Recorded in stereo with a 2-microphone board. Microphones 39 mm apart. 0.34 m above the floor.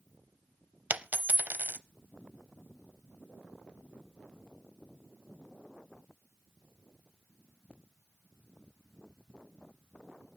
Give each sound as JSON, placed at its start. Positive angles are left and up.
{"t": 0.9, "sound": "a dropped coin", "side_deg": -55, "distance_m": 0.5}